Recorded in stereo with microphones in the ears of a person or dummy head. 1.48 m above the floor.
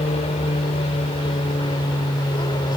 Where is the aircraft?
25° left (ahead or behind); by 2.8 s 20° left (ahead or behind).